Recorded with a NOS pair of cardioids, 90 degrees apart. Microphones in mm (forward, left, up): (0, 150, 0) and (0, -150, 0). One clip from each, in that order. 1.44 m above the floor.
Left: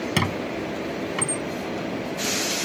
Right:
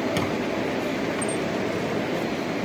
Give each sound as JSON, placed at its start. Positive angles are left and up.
{"t": 0.2, "sound": "a squeak", "azimuth_deg": 55}